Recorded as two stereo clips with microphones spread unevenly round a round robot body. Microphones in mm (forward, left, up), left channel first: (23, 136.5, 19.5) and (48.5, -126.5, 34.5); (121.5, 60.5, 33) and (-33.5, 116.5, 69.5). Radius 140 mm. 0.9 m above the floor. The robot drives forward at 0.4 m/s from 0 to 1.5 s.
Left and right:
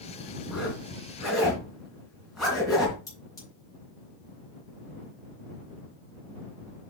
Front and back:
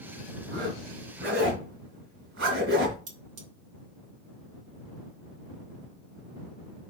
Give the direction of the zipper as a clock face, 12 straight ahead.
6 o'clock.